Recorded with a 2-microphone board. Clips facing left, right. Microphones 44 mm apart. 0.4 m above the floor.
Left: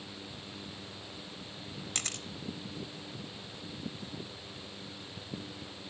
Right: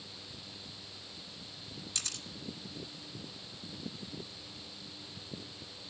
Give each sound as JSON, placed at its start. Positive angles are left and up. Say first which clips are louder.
{"t": 1.9, "sound": "a camera shutter", "louder": "left 4 dB", "side_deg": 50, "distance_m": 0.8}